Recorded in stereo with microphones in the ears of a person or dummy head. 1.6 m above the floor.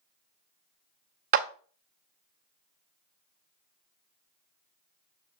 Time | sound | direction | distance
1.3 | a clap | 50° right (ahead or behind) | 0.5 m